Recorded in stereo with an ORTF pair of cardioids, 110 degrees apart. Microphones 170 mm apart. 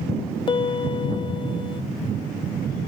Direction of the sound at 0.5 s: 30° left.